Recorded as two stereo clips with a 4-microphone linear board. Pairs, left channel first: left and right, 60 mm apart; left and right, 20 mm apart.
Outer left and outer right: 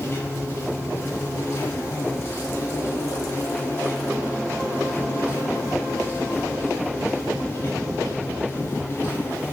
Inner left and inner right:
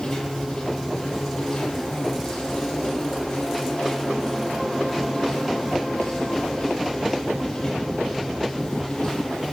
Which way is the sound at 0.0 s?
35° left (ahead or behind).